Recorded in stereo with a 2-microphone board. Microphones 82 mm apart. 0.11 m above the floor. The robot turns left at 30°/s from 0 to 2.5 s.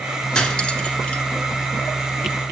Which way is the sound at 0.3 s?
10° left (ahead or behind).